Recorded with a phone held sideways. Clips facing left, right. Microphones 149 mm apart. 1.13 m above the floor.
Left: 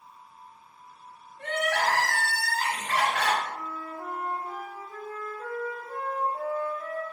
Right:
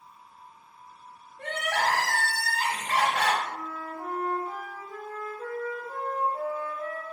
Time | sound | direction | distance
1.4 | crying | 35° right (ahead or behind) | 1.4 m
3.5 | a flute | 20° right (ahead or behind) | 2.0 m